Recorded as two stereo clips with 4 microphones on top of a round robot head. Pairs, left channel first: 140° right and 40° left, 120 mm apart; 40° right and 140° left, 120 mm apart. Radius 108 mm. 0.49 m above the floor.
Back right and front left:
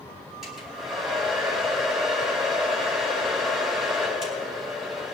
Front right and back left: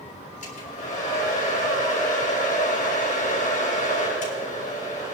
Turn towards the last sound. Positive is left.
turn(degrees=-50)